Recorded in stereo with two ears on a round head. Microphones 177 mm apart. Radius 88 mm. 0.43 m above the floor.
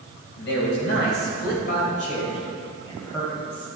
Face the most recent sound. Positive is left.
turn(degrees=10)  # may be behind; listen again after turning